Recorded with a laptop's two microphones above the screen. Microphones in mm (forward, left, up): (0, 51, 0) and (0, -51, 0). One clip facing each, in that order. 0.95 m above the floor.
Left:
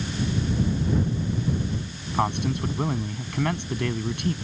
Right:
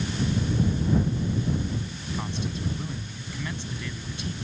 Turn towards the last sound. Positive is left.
turn(degrees=60)  # may be behind; listen again after turning